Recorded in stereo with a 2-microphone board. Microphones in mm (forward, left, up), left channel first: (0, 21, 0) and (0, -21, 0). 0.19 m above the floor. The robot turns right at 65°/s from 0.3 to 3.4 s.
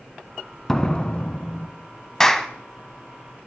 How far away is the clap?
About 0.8 m.